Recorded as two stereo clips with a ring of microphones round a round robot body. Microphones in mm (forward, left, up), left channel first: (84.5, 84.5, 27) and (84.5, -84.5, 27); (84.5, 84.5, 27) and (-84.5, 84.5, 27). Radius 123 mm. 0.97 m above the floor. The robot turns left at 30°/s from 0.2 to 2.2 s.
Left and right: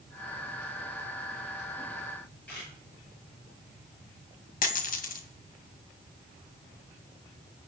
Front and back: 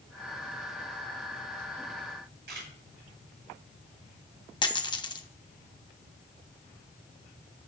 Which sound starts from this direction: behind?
A camera shutter, at 2.5 s.